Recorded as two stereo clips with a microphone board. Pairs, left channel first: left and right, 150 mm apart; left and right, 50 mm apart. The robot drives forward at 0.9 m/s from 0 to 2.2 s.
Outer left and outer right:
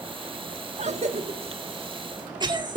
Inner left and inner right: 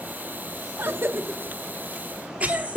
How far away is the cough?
About 1.1 m.